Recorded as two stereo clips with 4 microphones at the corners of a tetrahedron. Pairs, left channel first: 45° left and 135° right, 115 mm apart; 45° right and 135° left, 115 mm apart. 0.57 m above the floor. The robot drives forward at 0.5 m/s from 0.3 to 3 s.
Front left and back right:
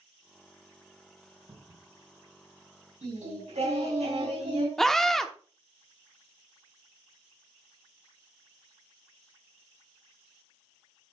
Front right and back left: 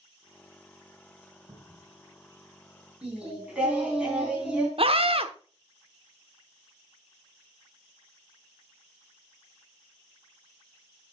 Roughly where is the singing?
Behind right.